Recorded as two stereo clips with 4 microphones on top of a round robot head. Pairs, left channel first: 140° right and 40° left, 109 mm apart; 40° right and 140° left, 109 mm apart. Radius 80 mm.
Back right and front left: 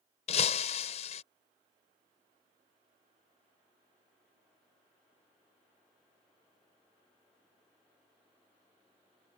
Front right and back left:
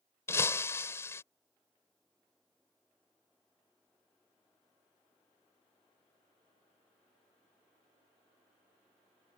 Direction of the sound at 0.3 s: 105° right.